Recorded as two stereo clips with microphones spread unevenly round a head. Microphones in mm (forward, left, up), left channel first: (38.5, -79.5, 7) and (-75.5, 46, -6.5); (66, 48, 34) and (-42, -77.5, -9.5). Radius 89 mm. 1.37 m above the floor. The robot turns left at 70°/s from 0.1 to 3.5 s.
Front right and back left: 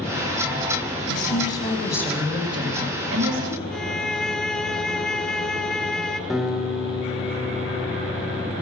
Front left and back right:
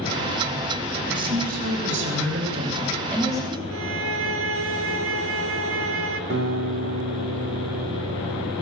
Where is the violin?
130° right, 1.8 m.